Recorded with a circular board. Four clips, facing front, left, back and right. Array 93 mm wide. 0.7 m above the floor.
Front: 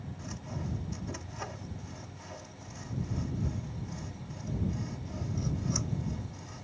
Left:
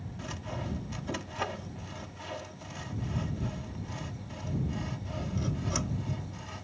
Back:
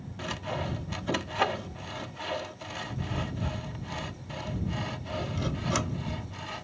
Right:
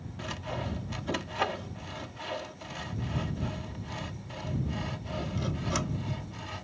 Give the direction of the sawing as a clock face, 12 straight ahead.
5 o'clock.